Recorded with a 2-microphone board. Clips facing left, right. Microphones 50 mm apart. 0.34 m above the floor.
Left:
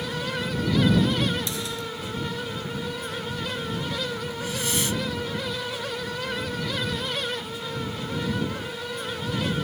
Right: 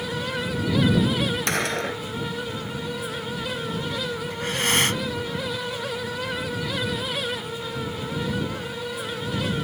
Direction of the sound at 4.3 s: 60° right (ahead or behind).